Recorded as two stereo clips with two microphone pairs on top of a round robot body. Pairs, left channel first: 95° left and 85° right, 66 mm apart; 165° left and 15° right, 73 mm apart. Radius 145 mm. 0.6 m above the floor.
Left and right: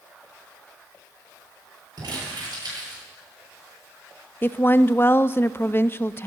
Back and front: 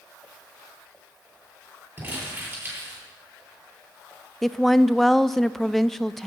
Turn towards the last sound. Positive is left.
turn(degrees=100)